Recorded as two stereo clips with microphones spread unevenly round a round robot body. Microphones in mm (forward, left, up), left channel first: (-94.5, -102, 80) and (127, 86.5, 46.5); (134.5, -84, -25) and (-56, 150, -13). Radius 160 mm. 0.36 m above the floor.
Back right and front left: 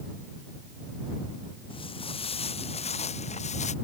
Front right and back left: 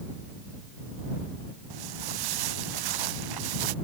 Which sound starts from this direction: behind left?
Footsteps, at 1.7 s.